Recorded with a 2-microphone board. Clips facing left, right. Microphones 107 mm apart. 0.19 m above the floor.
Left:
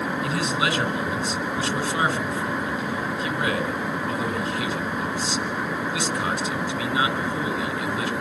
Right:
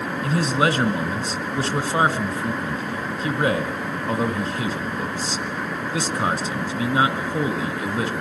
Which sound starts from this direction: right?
A man speaking, at 0.2 s.